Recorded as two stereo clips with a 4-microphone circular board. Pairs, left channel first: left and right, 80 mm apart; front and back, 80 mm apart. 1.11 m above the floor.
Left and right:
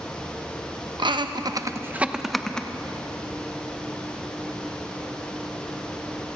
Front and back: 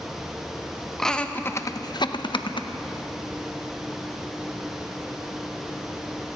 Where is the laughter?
85° right, 1.0 m; by 2.7 s 10° left, 1.2 m.